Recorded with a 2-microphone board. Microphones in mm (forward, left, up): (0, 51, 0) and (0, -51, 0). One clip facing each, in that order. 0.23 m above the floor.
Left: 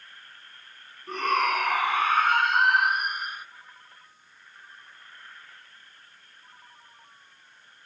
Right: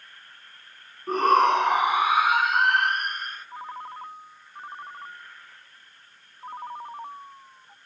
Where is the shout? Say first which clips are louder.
Right 6 dB; 40° right (ahead or behind); by 3.5 s 15° left (ahead or behind).